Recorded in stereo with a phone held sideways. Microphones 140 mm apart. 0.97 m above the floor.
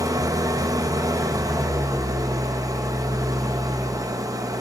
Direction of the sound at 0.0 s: 25° right (ahead or behind).